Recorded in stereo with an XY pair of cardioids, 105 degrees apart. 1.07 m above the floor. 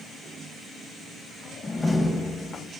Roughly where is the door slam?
Ahead left.